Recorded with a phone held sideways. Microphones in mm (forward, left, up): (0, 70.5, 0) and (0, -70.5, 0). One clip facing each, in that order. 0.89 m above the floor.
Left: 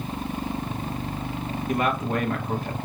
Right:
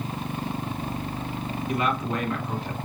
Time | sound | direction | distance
1.7 | a man speaking | 45° left (ahead or behind) | 1.3 m